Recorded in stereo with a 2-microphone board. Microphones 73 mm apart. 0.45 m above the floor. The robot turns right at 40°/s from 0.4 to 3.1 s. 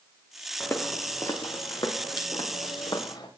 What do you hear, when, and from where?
0.6 s footsteps: 25° left (ahead or behind), 2.5 m; by 3.3 s 80° left, 5.5 m